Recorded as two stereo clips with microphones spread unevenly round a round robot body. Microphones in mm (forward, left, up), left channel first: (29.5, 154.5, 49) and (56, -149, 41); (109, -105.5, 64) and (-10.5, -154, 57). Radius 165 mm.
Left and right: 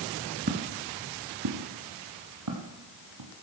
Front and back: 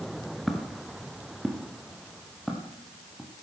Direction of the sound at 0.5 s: 60° right.